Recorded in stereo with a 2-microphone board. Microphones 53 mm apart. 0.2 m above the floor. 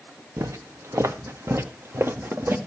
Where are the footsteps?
80° right, 1.5 m; by 2.6 s 45° right (ahead or behind), 2.5 m.